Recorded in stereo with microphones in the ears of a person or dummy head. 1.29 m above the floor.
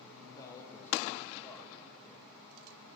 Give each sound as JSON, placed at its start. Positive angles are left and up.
{"t": 0.3, "sound": "a man speaking", "side_deg": 15, "distance_m": 1.1}